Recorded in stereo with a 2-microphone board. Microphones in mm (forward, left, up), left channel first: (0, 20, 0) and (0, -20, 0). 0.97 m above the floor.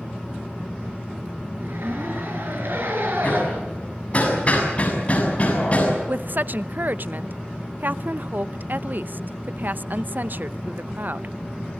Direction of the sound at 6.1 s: 50° right (ahead or behind).